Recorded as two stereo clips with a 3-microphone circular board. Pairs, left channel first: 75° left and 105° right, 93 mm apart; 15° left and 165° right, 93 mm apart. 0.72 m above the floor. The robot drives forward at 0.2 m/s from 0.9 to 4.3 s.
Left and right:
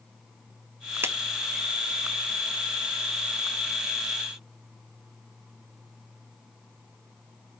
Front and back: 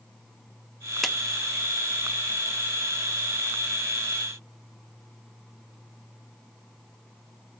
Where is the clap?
75° right, 0.7 m; by 1.2 s 80° right, 0.7 m.